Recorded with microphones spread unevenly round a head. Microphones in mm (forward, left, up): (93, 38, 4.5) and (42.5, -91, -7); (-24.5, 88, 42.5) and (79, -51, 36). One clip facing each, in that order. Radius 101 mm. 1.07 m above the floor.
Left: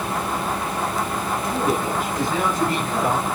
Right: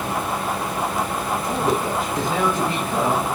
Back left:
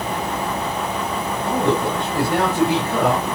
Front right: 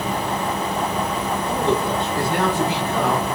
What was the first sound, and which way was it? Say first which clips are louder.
A man speaking: even, back left 2 dB; 175° left.